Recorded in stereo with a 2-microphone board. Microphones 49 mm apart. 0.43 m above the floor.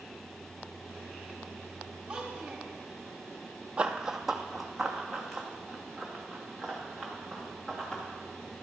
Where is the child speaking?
20° right (ahead or behind), 1.4 m.